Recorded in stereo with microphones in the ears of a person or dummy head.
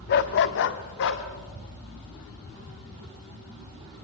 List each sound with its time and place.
0.1 s a dog barking: 45° left (ahead or behind), 1.1 m; by 1.2 s 60° left (ahead or behind), 2.0 m